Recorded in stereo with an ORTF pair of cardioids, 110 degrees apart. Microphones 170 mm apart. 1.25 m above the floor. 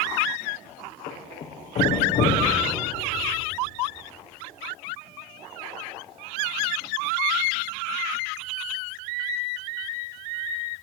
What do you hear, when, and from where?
1.1 s a thud: 55° left, 5.5 m